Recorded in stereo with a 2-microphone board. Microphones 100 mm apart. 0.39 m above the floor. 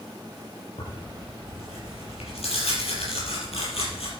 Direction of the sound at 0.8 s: 85° left.